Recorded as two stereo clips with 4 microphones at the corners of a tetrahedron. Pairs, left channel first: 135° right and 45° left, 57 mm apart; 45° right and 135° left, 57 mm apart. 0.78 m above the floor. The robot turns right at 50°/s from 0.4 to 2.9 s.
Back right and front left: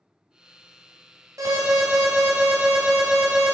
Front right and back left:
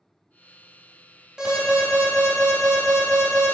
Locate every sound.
1.4 s an alarm: 55° left, 3 m; by 3.5 s 130° left, 3 m